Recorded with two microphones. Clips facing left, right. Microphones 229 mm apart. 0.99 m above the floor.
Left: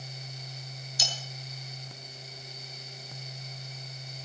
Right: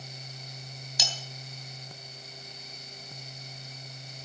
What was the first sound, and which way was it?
Cutlery clinking, 80° right.